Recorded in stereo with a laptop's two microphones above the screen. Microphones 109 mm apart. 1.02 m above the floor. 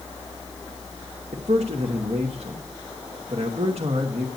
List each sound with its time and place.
0.0 s a fan: 25° left (ahead or behind), 5.5 m
1.3 s a man speaking: 70° right (ahead or behind), 1.1 m